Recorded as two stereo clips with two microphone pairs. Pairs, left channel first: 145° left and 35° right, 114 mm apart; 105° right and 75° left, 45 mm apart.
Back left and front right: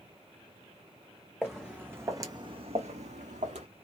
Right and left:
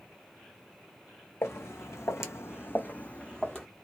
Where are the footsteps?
125° right, 0.9 m; by 3.7 s 25° right, 0.9 m.